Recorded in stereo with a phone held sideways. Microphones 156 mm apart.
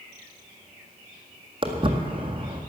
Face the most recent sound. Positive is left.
turn(degrees=-35)  # may be behind; listen again after turning